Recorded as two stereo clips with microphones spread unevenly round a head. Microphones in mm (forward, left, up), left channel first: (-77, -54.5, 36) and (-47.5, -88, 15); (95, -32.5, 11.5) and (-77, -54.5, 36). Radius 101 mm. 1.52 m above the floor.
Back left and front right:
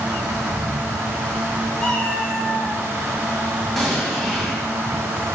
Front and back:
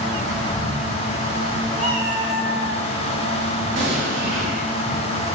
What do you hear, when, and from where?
1.8 s a cat meowing: 170° left, 1.6 m; by 2.8 s 155° left, 2 m
3.8 s an explosion: 160° right, 2 m